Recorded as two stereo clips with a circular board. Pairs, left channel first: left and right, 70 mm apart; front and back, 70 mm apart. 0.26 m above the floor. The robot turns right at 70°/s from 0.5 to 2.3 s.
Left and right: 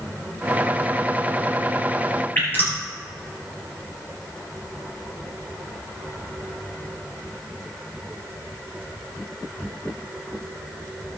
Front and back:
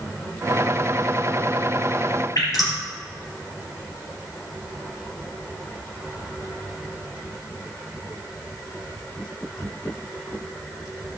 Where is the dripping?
30° left, 4.5 m.